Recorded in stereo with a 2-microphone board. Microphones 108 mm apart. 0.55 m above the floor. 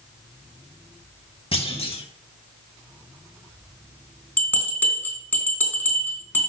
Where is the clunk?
60° left (ahead or behind), 1.2 m.